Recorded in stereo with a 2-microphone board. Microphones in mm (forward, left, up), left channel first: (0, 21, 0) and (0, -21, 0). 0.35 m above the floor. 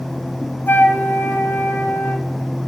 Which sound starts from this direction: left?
A flute, at 0.7 s.